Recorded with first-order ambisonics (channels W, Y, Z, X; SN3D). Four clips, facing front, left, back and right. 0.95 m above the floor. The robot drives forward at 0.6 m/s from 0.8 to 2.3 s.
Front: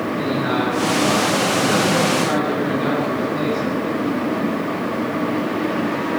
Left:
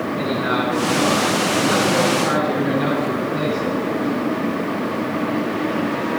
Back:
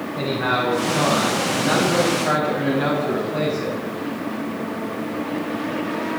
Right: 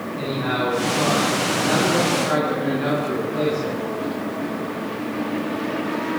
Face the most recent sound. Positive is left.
turn(degrees=170)